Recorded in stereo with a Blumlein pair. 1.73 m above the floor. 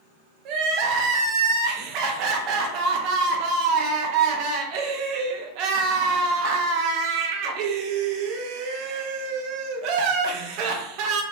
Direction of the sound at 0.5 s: 40° right.